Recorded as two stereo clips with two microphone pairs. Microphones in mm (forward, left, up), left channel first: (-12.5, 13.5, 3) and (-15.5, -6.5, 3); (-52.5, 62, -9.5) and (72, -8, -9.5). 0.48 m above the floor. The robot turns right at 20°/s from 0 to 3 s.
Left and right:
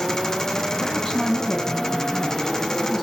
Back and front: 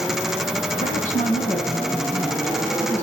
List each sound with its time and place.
0.8 s a woman speaking: 140° left, 3.5 m; by 3.0 s straight behind, 3.5 m